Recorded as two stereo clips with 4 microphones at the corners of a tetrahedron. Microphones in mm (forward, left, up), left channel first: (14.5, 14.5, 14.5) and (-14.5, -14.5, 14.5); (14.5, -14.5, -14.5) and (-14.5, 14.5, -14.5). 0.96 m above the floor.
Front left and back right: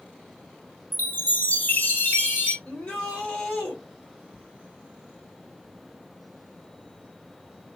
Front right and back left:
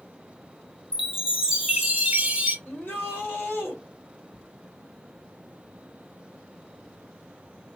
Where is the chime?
75° left, 1.2 m.